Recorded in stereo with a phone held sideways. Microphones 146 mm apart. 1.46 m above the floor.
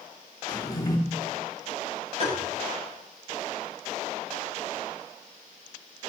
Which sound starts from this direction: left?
A drawer, at 0.5 s.